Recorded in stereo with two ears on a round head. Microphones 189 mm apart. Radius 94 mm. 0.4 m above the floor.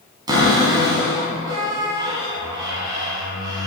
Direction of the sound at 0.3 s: 20° right (ahead or behind).